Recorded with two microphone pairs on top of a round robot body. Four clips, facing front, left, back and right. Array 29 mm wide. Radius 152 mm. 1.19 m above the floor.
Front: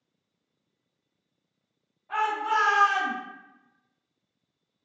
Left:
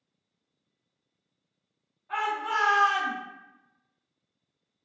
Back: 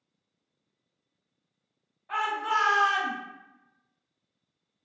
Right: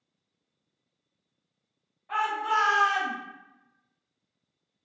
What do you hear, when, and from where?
2.1 s a shout: 140° right, 1.2 m